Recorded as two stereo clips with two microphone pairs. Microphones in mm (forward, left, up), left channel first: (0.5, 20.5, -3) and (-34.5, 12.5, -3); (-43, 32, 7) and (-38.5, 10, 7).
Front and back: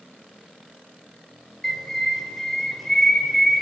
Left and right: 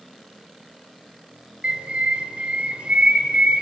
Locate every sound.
1.6 s a bird: 65° right, 2.5 m